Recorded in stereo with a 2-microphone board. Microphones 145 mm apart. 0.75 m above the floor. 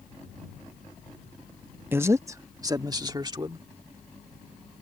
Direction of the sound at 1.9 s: 15° right (ahead or behind).